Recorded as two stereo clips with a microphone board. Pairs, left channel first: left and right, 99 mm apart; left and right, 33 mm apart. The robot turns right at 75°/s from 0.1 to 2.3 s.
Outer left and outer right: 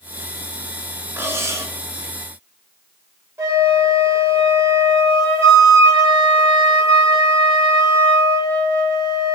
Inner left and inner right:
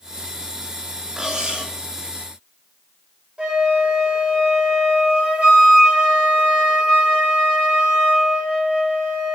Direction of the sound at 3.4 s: 25° right (ahead or behind).